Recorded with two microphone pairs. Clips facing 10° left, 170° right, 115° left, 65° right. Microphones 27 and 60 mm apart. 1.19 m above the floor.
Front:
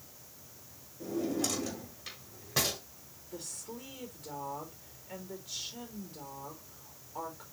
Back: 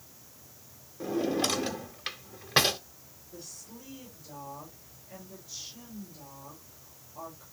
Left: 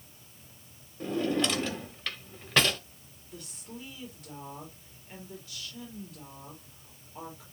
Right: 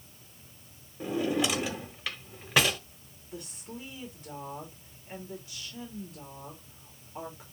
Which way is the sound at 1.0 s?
145° right.